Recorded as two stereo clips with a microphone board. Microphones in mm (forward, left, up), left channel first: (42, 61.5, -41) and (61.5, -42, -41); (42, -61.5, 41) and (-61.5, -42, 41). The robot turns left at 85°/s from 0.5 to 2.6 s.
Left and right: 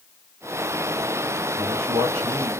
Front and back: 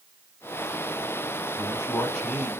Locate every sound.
1.6 s a man speaking: 55° right, 4 m; by 2.5 s 135° right, 4 m